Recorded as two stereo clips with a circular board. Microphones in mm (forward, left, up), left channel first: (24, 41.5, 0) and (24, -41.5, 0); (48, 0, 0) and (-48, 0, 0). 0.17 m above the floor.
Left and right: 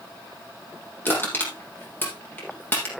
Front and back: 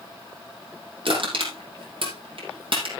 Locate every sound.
1.1 s crushing: 155° left, 5 m